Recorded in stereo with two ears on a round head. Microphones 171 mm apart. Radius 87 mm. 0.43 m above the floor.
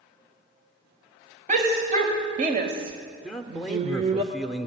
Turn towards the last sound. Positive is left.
turn(degrees=0)  # may be behind; listen again after turning